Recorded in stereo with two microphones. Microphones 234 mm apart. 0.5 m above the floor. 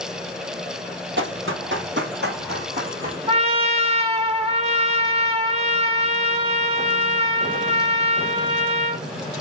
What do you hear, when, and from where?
1.2 s running footsteps: 55° right (ahead or behind), 0.8 m; by 3.2 s 35° right (ahead or behind), 2 m
3.3 s a trumpet: 25° right (ahead or behind), 0.7 m